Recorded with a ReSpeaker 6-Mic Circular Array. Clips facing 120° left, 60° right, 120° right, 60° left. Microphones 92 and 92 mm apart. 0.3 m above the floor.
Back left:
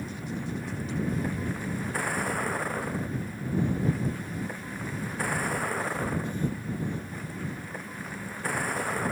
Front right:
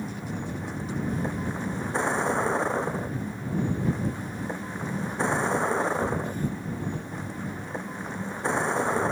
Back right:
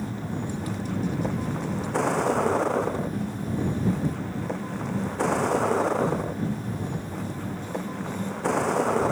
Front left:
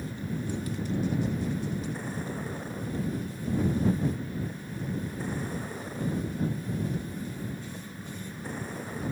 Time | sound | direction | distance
0.0 | a vehicle | 125° right | ?